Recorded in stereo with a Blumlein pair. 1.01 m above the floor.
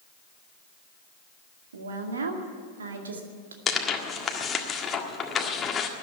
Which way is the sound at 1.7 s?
70° right.